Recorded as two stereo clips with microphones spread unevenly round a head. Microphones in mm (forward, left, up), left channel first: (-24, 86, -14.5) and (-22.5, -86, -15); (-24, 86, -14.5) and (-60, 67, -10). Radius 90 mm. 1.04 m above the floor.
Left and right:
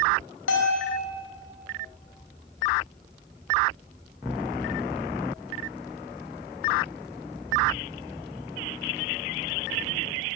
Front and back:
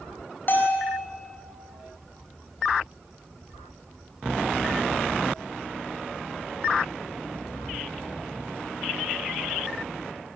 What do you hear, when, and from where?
0.5 s a bell: 65° left, 6.5 m